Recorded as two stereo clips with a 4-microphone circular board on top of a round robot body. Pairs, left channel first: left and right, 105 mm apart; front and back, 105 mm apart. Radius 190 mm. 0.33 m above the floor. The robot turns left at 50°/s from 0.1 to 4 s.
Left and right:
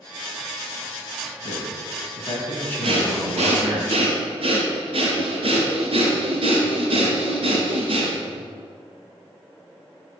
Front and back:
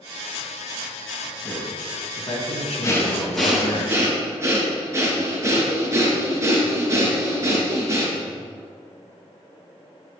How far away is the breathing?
About 3.5 m.